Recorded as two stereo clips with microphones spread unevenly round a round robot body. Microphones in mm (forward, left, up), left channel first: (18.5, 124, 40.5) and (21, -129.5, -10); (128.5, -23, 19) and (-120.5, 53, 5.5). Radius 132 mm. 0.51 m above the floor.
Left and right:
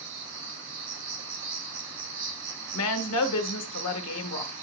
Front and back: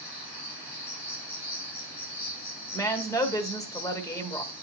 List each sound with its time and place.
0.0 s an insect: 75° right, 6 m
2.7 s a woman speaking: 60° left, 1.6 m